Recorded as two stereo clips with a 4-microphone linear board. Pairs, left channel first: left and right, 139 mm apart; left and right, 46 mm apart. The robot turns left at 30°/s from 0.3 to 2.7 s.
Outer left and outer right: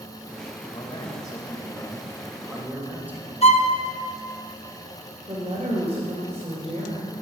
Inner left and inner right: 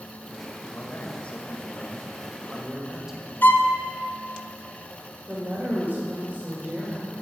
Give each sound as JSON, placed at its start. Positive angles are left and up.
{"t": 0.7, "sound": "a man speaking", "azimuth_deg": 45, "distance_m": 1.4}
{"t": 3.4, "sound": "a violin", "side_deg": 50, "distance_m": 0.6}
{"t": 5.3, "sound": "a woman speaking", "side_deg": -45, "distance_m": 1.8}